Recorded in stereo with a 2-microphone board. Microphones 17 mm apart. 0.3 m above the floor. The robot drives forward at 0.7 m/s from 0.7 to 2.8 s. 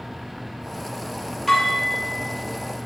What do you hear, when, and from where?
1.5 s dishes clattering: 20° left (ahead or behind), 4.5 m; by 2.9 s 15° left (ahead or behind), 5 m